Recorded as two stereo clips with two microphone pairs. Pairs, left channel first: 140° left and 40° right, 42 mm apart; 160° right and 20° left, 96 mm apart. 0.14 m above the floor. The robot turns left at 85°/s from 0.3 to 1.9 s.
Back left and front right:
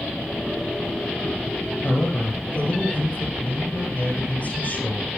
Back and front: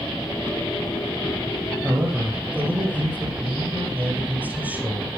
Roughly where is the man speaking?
Left.